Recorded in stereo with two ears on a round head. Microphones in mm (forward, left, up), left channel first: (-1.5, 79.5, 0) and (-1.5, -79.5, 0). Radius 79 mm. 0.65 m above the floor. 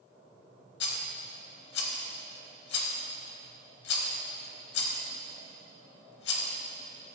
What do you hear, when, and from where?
0.8 s a rattle: 65° left (ahead or behind), 0.8 m